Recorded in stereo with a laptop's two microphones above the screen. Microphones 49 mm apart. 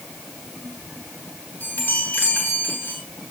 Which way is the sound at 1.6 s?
40° left (ahead or behind).